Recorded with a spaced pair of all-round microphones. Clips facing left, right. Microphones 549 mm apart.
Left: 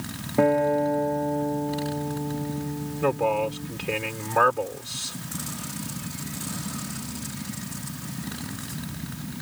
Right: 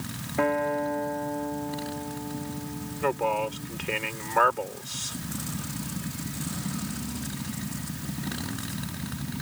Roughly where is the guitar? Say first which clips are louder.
Left 6 dB; left.